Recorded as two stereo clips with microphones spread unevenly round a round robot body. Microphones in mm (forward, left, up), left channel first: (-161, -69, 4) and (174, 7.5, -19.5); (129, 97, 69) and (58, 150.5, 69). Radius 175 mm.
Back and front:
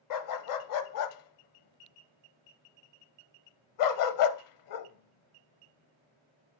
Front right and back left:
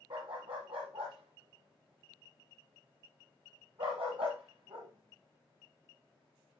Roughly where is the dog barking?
Behind right.